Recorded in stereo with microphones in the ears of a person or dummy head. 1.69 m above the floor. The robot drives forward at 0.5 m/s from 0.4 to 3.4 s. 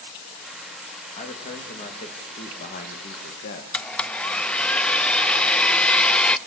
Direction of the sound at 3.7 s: 5° left (ahead or behind).